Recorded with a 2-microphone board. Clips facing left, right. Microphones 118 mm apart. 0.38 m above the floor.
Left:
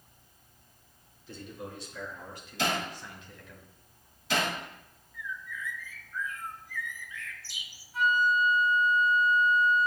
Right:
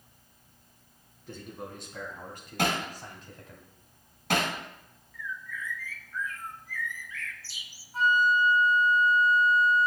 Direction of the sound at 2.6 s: 65° right (ahead or behind).